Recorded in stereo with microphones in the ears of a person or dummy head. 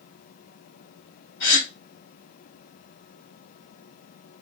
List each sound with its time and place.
1.4 s a gasp: 75° left (ahead or behind), 2.0 m